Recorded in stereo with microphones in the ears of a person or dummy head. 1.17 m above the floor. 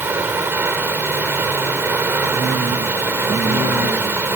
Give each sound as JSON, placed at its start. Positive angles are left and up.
{"t": 0.0, "sound": "running water", "side_deg": -15}